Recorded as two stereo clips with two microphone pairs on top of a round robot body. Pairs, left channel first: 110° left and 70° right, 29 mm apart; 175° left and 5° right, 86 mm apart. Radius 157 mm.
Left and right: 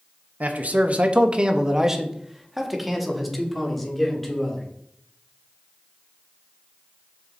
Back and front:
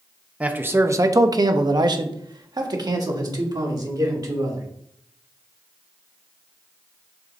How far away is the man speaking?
About 0.9 m.